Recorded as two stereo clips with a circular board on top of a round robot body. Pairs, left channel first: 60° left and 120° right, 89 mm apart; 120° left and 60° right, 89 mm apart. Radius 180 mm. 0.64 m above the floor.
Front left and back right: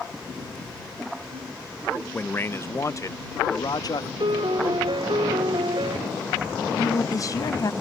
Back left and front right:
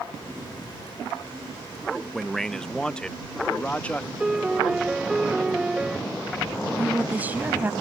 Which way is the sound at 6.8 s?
10° left.